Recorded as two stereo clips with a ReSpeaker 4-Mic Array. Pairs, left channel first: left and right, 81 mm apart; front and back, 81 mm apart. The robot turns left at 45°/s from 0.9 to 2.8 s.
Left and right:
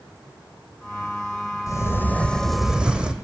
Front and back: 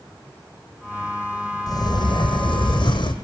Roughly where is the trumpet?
No trumpet in this recording.